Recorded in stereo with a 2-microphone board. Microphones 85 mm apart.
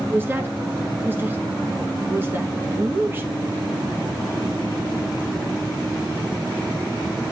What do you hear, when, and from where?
0.1 s a woman speaking: 25° right (ahead or behind), 1.0 m